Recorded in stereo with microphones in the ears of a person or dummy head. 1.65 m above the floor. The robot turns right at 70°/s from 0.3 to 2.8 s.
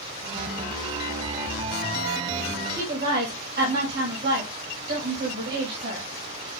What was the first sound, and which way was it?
A woman speaking, 65° right (ahead or behind).